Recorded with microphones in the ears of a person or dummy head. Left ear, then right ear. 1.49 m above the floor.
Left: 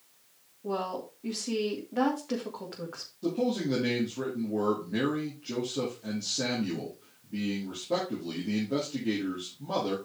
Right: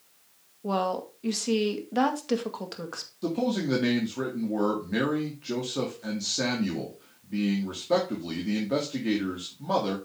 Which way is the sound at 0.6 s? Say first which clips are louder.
Right 5 dB; 85° right.